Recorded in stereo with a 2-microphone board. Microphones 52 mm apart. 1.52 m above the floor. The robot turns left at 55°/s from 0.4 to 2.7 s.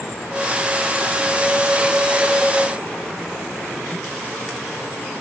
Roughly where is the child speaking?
I don't hear a child speaking.